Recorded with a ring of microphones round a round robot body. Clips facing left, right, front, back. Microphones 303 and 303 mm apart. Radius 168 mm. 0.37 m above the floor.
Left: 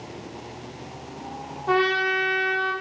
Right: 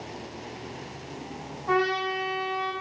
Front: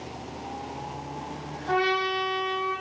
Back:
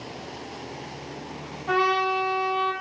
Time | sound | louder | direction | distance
1.7 | a trumpet | left 3 dB, back 1 dB | 125° left | 5 m